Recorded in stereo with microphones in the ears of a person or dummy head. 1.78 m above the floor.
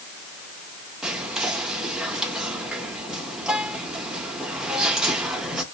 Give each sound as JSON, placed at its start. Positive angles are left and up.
{"t": 1.0, "sound": "whispering", "side_deg": -5, "distance_m": 0.6}